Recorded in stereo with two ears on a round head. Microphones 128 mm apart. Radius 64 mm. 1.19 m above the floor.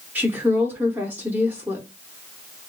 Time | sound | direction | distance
0.1 | a woman speaking | 10° right (ahead or behind) | 0.8 m